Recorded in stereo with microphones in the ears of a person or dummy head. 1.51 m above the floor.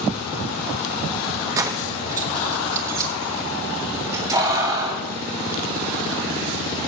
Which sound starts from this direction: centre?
Keys jangling, at 1.6 s.